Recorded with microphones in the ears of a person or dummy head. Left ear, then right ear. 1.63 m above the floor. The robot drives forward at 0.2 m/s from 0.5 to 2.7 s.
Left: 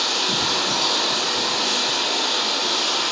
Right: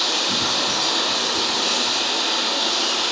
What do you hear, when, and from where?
0.0 s running water: 10° left (ahead or behind), 1.3 m; by 3.1 s 5° left (ahead or behind), 1.7 m